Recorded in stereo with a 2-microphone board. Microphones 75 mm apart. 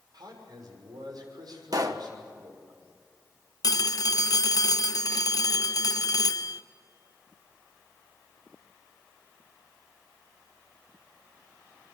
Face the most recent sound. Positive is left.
turn(degrees=55)  # may be behind; listen again after turning